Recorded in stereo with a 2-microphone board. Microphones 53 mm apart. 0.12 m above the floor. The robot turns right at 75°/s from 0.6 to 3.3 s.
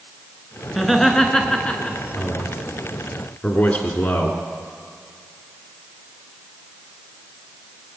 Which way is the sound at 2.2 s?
5° left (ahead or behind).